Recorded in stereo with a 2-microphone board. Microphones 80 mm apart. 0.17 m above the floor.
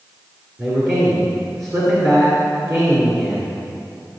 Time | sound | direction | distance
0.6 | a man speaking | 45° right (ahead or behind) | 2.5 m